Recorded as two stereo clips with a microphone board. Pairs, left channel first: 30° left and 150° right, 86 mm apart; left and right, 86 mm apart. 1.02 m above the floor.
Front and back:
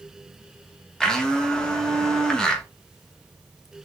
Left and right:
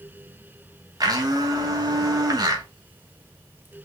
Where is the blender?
50° right, 1.1 m.